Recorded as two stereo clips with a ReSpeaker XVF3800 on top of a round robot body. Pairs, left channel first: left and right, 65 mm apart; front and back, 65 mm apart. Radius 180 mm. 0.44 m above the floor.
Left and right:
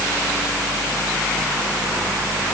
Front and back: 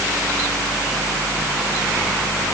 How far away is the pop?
I don't hear a pop.